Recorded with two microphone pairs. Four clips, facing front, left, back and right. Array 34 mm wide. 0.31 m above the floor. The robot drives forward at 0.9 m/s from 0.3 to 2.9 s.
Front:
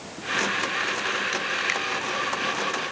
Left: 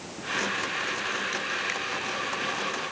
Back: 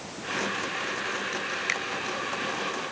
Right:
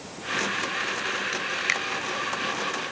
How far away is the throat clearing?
No throat clearing in this recording.